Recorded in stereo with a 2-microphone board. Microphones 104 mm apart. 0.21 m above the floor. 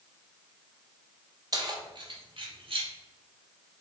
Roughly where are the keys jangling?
Right.